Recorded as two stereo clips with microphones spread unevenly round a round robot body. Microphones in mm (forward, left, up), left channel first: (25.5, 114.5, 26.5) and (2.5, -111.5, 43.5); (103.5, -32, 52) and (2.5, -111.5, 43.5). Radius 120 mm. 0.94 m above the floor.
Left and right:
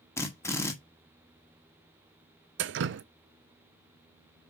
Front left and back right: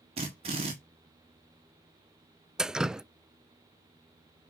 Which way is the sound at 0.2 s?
165° left.